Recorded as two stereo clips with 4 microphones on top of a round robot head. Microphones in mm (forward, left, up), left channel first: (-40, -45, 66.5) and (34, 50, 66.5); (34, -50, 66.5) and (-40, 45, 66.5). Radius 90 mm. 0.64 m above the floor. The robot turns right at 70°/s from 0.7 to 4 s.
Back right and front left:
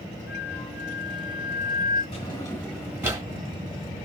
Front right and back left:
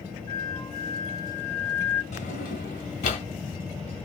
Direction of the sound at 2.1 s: 85° right.